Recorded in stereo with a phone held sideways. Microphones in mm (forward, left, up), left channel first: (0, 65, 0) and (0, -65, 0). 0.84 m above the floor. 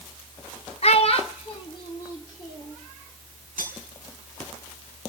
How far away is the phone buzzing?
I don't hear a phone buzzing.